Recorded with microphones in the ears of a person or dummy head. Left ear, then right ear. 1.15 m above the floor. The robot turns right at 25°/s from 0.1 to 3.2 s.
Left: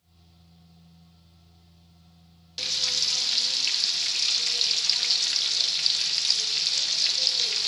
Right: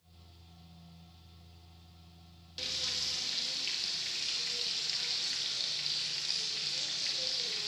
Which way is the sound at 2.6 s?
25° left (ahead or behind).